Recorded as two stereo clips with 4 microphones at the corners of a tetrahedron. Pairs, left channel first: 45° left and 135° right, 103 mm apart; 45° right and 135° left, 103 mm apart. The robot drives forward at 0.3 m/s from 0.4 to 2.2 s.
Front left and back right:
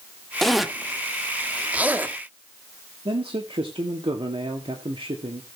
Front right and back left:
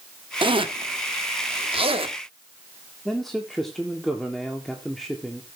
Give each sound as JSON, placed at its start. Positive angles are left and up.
{"t": 0.4, "sound": "a zipper", "azimuth_deg": 130, "distance_m": 0.8}
{"t": 3.0, "sound": "a man speaking", "azimuth_deg": -135, "distance_m": 1.9}